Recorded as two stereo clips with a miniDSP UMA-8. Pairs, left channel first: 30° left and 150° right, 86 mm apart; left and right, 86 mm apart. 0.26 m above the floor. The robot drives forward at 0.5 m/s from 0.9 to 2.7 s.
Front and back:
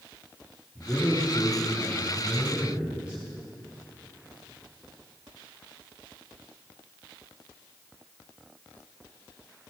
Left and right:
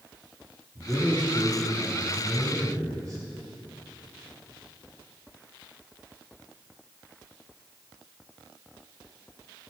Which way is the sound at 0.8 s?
45° right.